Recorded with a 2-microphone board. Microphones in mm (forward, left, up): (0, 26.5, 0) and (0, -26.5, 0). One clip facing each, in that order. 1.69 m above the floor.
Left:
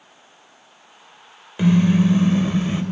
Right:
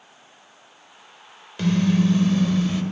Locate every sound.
1.6 s a car horn: 10° left (ahead or behind), 4 m; by 2.8 s 15° left (ahead or behind), 4.5 m